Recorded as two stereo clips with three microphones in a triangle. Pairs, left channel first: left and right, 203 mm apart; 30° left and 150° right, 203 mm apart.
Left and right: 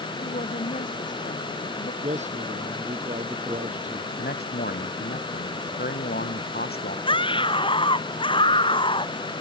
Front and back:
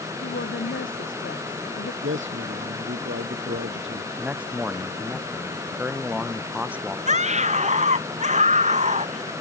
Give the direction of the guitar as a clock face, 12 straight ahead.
No guitar in this recording.